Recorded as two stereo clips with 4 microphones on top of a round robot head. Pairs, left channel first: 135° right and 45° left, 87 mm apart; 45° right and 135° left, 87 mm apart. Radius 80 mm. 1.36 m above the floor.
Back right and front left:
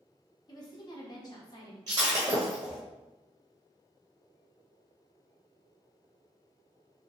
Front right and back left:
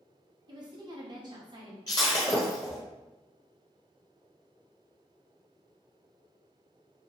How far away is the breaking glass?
About 0.6 m.